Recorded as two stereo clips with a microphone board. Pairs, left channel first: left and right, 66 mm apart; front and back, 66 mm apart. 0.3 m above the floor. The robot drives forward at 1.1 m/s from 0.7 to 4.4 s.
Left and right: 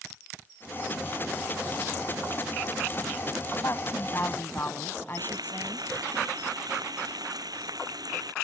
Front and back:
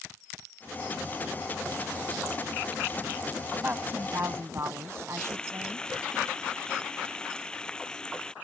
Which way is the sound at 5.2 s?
80° right.